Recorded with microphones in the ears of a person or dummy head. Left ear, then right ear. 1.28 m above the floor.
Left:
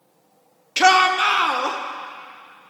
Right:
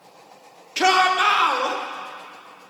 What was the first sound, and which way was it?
A shout, 10° left (ahead or behind).